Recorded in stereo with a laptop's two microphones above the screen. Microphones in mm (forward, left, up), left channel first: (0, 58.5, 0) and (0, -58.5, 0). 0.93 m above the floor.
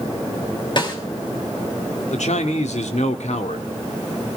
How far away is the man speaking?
About 1.9 m.